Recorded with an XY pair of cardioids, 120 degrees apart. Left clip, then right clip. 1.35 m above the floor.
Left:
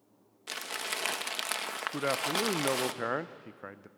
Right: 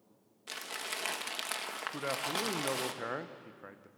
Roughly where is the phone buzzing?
No phone buzzing in this recording.